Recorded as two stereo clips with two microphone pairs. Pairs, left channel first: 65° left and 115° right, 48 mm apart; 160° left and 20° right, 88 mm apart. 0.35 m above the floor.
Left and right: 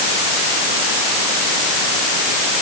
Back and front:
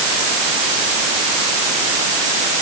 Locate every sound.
Only background noise.